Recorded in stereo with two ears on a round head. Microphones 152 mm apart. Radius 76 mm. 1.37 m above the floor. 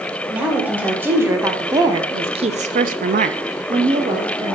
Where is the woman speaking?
10° right (ahead or behind), 2.0 m; by 4.5 s 20° right (ahead or behind), 1.3 m.